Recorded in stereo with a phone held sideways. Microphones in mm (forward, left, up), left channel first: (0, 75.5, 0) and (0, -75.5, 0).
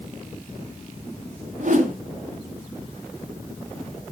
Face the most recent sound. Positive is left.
turn(degrees=-55)  # may be behind; listen again after turning